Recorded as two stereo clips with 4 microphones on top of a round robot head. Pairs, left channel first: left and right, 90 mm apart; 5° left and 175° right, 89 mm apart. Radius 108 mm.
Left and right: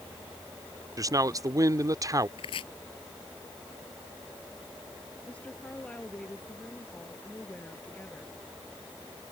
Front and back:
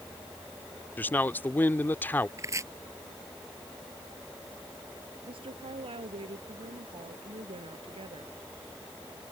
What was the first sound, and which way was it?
A man speaking, 60° right.